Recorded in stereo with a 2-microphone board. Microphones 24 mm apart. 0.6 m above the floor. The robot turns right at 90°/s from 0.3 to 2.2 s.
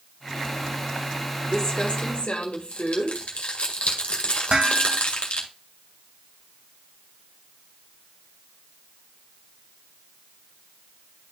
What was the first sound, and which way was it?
Crumpling, 10° left (ahead or behind).